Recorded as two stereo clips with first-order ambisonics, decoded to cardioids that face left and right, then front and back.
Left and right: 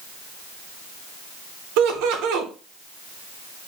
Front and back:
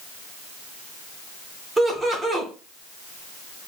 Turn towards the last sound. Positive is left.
turn(degrees=-100)